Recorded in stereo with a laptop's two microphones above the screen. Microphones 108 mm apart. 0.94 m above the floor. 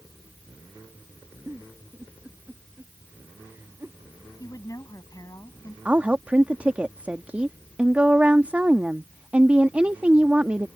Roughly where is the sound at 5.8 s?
Centre.